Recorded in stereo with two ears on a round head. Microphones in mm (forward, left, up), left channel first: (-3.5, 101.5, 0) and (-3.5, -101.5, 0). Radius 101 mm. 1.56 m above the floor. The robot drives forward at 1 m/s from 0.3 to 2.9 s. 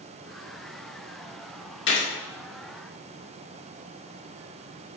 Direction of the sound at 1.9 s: 55° left (ahead or behind).